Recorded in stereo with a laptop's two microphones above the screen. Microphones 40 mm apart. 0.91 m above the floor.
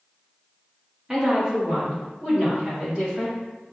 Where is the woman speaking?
10° right (ahead or behind), 1.0 m; by 3.4 s 30° right (ahead or behind), 2.5 m.